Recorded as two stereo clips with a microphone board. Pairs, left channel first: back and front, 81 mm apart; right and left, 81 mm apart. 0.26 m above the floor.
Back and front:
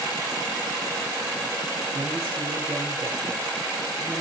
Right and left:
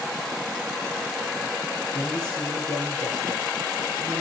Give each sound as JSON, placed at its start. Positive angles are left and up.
{"t": 1.9, "sound": "a man speaking", "azimuth_deg": -50, "distance_m": 5.0}